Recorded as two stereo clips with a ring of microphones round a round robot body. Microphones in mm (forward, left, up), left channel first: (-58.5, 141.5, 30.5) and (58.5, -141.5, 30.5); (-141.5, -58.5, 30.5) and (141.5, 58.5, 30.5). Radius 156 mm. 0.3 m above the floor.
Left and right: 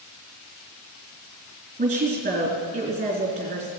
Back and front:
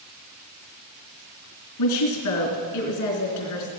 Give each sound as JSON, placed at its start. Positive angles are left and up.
{"t": 1.8, "sound": "a woman speaking", "azimuth_deg": -135, "distance_m": 3.5}